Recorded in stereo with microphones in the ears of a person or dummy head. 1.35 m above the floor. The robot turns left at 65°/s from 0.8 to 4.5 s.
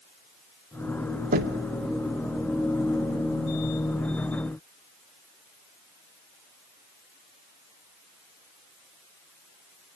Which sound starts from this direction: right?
Knocking, at 1.3 s.